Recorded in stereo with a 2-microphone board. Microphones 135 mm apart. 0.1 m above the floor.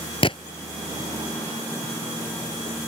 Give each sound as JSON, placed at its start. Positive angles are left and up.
{"t": 0.2, "sound": "a gunshot", "side_deg": 45}